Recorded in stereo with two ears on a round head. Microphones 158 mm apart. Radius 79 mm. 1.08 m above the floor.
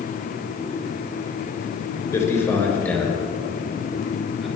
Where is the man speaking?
20° left (ahead or behind), 4 m; by 4.5 s 5° right (ahead or behind), 6 m.